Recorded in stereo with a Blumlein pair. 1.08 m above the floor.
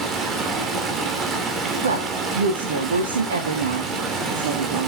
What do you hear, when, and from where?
0.0 s running water: 25° right, 3 m
1.8 s a woman speaking: 65° right, 2 m